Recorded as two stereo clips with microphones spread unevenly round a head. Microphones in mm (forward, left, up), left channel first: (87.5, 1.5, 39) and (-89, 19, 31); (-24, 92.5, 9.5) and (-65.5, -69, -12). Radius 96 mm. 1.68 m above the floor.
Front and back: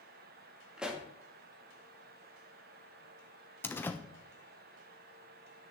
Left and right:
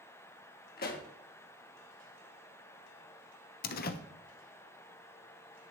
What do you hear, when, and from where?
0.8 s a pop: 90° left, 1.8 m
3.6 s a door slam: 70° left, 1.0 m